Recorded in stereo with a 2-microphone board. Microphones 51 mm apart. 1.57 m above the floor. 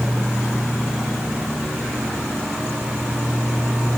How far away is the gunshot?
I don't hear a gunshot.